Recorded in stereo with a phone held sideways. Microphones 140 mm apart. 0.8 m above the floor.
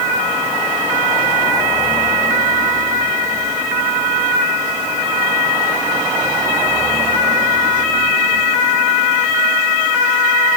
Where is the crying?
No crying in this recording.